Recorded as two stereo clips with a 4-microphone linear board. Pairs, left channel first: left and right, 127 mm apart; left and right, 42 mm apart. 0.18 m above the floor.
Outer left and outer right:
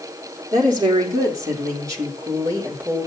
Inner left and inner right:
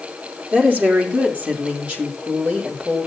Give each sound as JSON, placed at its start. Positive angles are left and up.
{"t": 0.5, "sound": "a woman speaking", "side_deg": -35, "distance_m": 6.0}